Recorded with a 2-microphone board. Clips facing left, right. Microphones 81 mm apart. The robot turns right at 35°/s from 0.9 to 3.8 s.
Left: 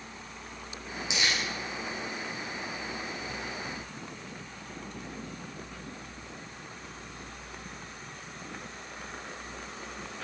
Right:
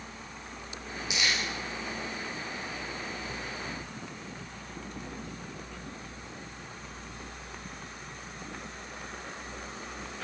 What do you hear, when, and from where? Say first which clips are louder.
1.1 s crumpling: even; 20° left (ahead or behind), 8 m; by 1.4 s 30° left (ahead or behind), 8 m